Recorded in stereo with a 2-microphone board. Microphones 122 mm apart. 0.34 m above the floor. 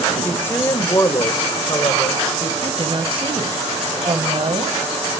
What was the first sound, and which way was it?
A woman speaking, 15° left (ahead or behind).